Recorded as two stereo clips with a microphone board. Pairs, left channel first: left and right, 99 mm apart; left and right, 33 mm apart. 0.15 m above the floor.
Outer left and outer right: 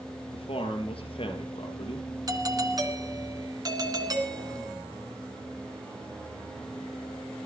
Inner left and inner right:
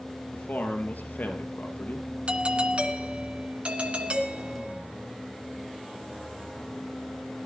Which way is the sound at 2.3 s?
40° right (ahead or behind).